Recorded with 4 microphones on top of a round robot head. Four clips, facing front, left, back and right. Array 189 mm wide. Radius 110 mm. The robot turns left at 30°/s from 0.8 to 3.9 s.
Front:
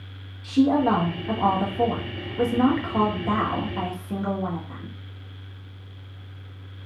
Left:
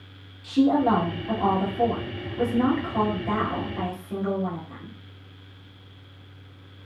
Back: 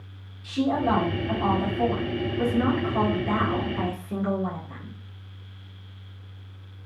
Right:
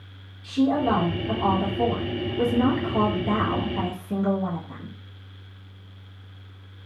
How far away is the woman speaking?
About 1.2 m.